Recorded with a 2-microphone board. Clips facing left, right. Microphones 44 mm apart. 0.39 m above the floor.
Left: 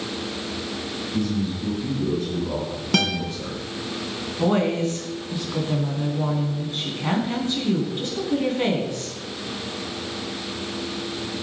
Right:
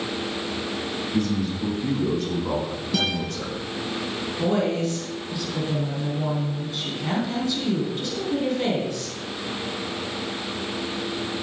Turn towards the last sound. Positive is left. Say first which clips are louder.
# left 2 dB
turn(degrees=35)  # may be behind; listen again after turning